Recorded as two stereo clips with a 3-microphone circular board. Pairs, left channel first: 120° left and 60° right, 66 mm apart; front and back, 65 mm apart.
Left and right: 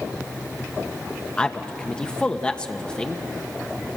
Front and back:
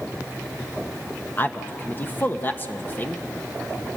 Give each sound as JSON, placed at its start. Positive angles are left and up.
{"t": 1.4, "sound": "a man speaking", "azimuth_deg": 50, "distance_m": 1.2}